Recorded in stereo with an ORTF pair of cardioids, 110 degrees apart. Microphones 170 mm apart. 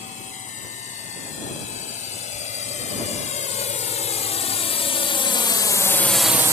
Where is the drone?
45° left; by 6.5 s 40° right.